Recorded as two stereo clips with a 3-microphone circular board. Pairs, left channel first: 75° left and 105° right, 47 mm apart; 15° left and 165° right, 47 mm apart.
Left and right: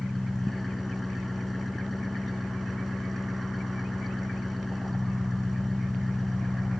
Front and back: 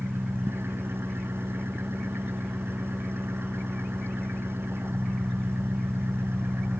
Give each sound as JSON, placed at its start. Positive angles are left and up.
{"t": 0.0, "sound": "an engine running", "azimuth_deg": 165}